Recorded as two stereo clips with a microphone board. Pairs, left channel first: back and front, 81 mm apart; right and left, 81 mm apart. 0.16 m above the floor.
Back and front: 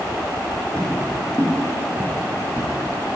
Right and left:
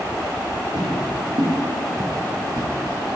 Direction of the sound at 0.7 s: 105° left.